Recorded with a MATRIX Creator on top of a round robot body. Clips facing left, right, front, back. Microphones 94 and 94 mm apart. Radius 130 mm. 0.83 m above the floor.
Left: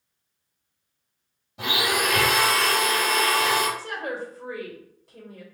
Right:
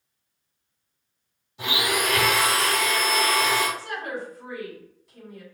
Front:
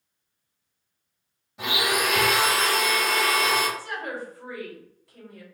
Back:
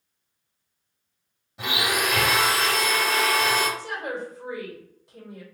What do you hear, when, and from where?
1.6 s a blender: 90° left, 2.5 m
3.8 s a woman speaking: 115° left, 2.0 m